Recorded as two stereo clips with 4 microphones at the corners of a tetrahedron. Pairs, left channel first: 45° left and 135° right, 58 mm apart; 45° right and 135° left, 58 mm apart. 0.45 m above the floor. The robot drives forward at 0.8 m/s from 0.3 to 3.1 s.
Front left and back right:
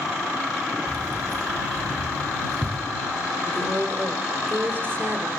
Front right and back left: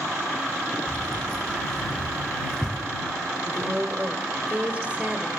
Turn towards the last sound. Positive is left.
turn(degrees=-165)